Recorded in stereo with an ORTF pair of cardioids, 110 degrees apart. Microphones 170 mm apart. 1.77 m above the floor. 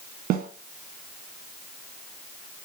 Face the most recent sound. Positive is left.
turn(degrees=-60)